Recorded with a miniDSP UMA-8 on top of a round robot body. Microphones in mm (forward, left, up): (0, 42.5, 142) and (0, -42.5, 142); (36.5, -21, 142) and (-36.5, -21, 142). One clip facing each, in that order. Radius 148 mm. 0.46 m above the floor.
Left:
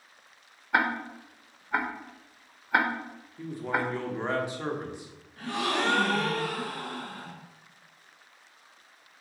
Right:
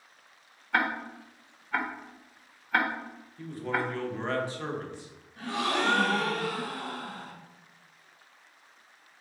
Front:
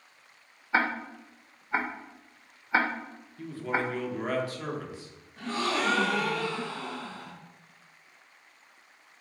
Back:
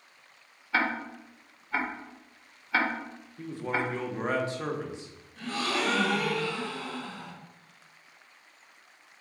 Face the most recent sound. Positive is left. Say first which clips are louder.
# even, front 1 dB
turn(degrees=-40)